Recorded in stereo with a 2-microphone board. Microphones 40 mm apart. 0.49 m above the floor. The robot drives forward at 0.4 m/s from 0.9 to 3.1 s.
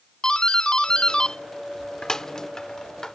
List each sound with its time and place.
0.2 s a doorbell: 20° left (ahead or behind); by 3.1 s 15° left (ahead or behind)